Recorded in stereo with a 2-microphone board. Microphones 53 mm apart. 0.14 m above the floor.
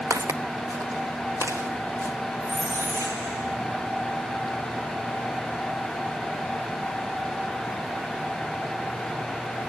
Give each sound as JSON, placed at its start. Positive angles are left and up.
{"t": 0.1, "sound": "footsteps", "side_deg": -85, "distance_m": 0.9}
{"t": 2.4, "sound": "a squeak", "side_deg": -70, "distance_m": 6.0}